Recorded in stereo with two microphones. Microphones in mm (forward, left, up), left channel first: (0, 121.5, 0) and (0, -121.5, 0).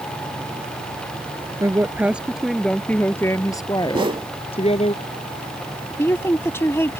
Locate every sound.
1.6 s a woman speaking: 10° right (ahead or behind); by 4.9 s 30° left (ahead or behind)
3.9 s a whoosh: 20° right (ahead or behind)
6.0 s a woman speaking: 10° left (ahead or behind)